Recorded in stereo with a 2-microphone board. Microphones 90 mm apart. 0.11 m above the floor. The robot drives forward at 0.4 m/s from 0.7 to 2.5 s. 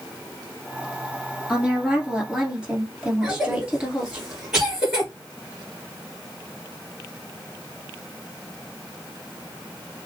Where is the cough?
5° right (ahead or behind), 1.9 m.